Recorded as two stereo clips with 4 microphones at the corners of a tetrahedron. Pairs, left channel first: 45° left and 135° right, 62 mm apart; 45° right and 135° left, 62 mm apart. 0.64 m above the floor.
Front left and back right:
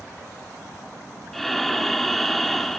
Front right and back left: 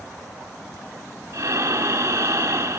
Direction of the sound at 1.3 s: 130° left.